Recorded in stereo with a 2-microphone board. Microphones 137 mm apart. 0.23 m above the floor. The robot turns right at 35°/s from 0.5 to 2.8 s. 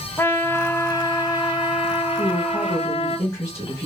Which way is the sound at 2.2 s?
25° left (ahead or behind).